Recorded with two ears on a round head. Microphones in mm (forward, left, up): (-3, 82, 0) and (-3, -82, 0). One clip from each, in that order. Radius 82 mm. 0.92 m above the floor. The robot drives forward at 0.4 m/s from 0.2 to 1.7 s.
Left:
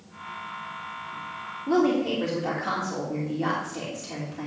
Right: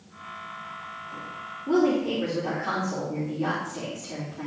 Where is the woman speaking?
45° left (ahead or behind), 2 m.